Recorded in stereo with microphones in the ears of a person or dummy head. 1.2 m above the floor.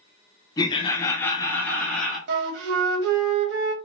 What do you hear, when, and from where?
0.6 s laughter: 20° left (ahead or behind), 0.6 m; by 2.2 s 5° left (ahead or behind), 0.8 m
2.3 s a flute: 70° right (ahead or behind), 0.7 m